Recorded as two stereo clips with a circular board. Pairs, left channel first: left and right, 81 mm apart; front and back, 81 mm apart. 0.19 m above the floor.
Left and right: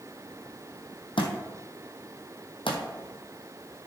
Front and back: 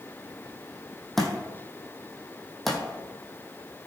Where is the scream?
No scream in this recording.